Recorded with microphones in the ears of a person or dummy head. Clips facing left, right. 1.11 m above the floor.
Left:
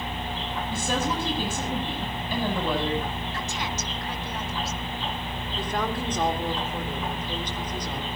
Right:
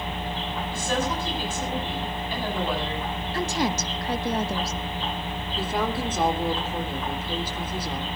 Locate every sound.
0.7 s a woman speaking: 90° left, 8.5 m
3.3 s a woman speaking: 35° right (ahead or behind), 1.1 m
5.6 s a woman speaking: 5° right (ahead or behind), 3.5 m